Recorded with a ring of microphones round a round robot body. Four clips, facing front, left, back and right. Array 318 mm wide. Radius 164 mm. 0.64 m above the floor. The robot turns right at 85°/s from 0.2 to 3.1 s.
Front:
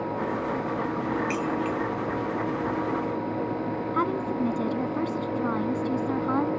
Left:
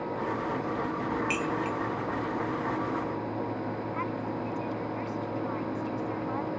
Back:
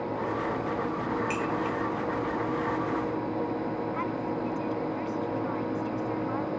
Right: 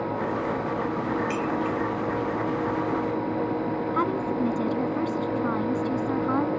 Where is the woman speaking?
45° right.